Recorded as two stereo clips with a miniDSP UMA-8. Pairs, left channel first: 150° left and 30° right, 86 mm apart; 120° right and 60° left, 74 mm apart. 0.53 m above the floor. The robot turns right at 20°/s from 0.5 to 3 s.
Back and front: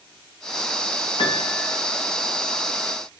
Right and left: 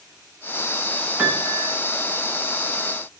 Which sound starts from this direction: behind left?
A piano, at 1.2 s.